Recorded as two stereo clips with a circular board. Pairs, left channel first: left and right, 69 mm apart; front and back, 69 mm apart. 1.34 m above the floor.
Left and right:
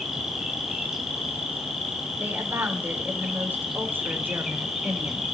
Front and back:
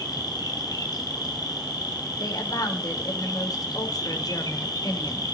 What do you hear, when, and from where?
0.0 s an insect: 5° right, 3.5 m
2.2 s a woman speaking: 30° right, 4 m